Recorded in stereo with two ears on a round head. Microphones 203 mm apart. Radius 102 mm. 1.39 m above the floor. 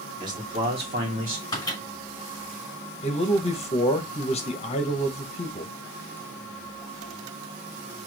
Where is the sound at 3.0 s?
30° left (ahead or behind), 1.1 m.